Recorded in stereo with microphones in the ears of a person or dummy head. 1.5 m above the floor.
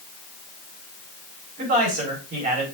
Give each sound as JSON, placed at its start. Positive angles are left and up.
{"t": 1.6, "sound": "a man speaking", "side_deg": -55, "distance_m": 4.5}